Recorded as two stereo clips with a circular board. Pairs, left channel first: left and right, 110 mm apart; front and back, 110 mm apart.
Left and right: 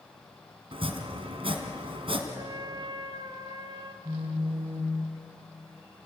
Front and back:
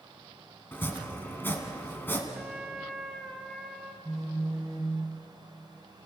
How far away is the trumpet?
About 1.6 m.